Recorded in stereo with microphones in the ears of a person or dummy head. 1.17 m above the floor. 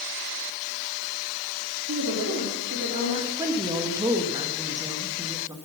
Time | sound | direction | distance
1.9 | a woman speaking | 65° right (ahead or behind) | 3 m
3.4 | a woman speaking | 20° right (ahead or behind) | 1.4 m